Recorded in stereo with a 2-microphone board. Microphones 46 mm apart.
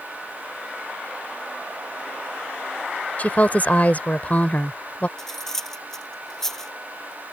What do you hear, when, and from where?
3.2 s a woman speaking: 35° left (ahead or behind)
5.2 s cutlery clinking: 10° left (ahead or behind)